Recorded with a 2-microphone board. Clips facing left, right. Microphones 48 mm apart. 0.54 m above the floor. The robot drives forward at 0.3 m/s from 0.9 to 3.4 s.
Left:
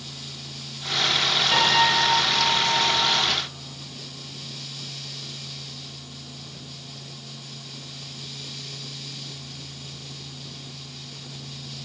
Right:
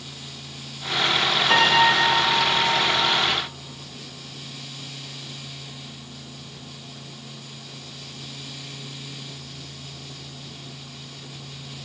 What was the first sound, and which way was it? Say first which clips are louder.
A piano: right 3 dB; 60° right (ahead or behind).